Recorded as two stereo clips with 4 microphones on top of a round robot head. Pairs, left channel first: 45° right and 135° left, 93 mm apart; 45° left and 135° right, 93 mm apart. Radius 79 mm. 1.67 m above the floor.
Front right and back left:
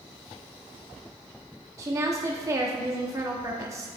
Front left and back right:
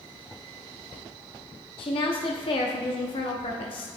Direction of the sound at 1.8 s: 75° left.